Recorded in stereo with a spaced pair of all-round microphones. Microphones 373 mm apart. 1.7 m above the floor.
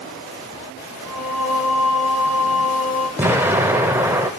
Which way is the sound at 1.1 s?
40° left (ahead or behind).